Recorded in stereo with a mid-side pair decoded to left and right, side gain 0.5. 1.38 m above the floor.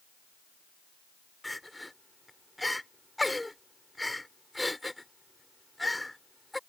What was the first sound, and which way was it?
Crying, 10° left.